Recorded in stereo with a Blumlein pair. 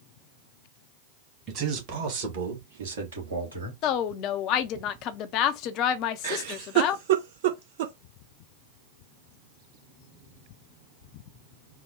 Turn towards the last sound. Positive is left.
turn(degrees=-55)